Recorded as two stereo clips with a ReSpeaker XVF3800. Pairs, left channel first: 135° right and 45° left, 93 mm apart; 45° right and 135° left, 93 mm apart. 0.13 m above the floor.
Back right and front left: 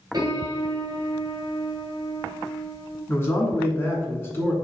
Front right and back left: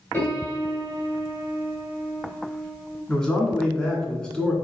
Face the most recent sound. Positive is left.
turn(degrees=-115)